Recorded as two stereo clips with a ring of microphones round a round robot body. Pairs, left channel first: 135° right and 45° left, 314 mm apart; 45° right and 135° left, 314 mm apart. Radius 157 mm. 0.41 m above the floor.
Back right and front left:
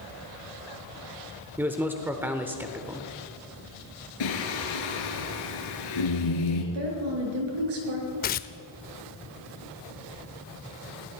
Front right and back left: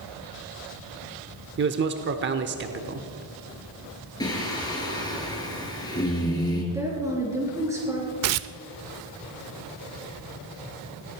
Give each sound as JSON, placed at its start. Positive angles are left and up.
{"t": 1.6, "sound": "a man speaking", "azimuth_deg": 125, "distance_m": 0.8}
{"t": 4.2, "sound": "singing", "azimuth_deg": -125, "distance_m": 3.0}
{"t": 6.7, "sound": "a woman speaking", "azimuth_deg": 55, "distance_m": 5.5}
{"t": 8.2, "sound": "tearing paper", "azimuth_deg": 165, "distance_m": 0.5}